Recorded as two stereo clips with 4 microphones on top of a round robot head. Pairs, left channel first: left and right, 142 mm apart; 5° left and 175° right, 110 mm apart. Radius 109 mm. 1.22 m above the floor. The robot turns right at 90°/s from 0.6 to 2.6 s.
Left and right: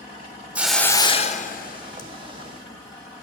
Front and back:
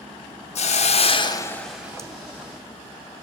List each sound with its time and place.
0.6 s a hiss: 10° right, 1.0 m; by 2.1 s 125° left, 1.0 m